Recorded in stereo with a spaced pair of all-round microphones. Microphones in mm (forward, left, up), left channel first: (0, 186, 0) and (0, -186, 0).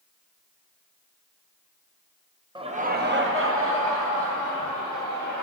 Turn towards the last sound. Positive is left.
turn(degrees=-45)  # may be behind; listen again after turning